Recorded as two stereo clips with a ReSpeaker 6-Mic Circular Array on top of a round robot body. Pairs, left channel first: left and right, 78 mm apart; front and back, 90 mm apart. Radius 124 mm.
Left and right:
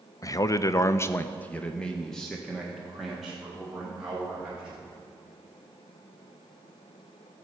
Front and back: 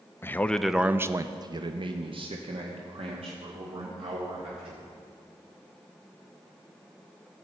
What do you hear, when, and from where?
0.2 s a man speaking: 60° left, 0.7 m; by 4.8 s 175° right, 2.5 m